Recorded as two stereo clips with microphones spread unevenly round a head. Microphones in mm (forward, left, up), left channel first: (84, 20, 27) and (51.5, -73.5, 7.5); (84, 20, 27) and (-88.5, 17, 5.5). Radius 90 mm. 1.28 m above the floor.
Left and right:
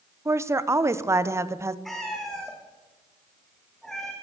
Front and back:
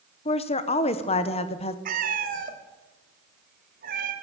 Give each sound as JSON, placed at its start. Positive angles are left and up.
{"t": 0.2, "sound": "a woman speaking", "azimuth_deg": -60, "distance_m": 0.9}
{"t": 1.9, "sound": "a cat meowing", "azimuth_deg": 150, "distance_m": 1.5}